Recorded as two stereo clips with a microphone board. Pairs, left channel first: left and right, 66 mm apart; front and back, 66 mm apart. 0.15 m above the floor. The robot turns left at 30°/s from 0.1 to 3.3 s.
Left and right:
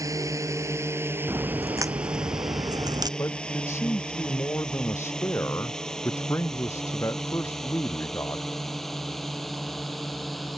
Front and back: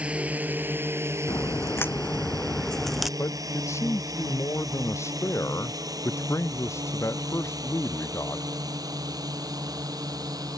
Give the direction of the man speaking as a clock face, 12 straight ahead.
10 o'clock.